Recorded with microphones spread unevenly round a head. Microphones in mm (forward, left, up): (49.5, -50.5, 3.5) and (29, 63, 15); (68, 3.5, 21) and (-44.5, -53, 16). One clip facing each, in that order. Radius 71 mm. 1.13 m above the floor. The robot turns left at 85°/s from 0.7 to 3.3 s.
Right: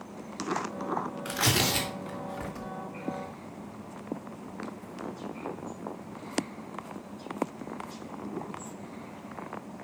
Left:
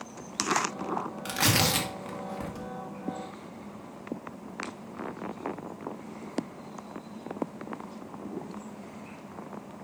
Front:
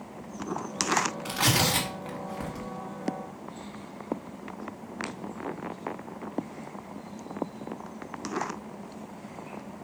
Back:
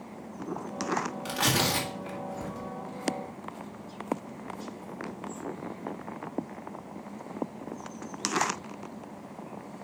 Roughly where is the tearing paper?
Behind left.